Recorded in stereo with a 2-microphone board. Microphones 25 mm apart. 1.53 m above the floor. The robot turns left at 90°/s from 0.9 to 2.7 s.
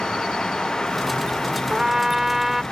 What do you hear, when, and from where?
1.7 s a trumpet: 20° right (ahead or behind); by 2.6 s 5° right (ahead or behind)